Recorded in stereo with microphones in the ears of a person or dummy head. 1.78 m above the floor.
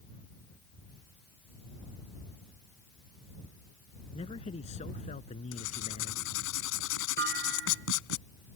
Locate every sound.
4.1 s a man speaking: 25° left (ahead or behind); by 6.4 s 35° left (ahead or behind)
5.5 s writing: 80° left
7.2 s a clunk: 55° right (ahead or behind)